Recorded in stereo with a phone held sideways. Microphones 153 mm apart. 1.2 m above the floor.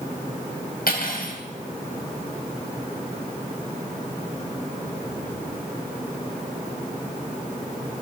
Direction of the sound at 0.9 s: 80° left.